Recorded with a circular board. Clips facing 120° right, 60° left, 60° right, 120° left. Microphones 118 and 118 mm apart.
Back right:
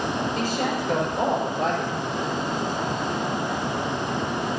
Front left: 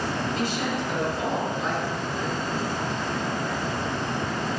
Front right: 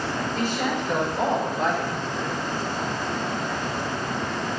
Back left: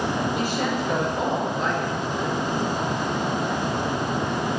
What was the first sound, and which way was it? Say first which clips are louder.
A woman speaking: back right 2 dB, back left 1 dB; 165° right.